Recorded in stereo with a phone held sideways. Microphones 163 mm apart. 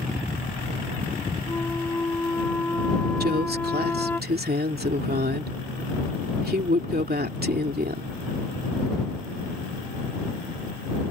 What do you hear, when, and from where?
1.5 s a flute: 10° left (ahead or behind)
3.2 s a woman speaking: 75° right (ahead or behind)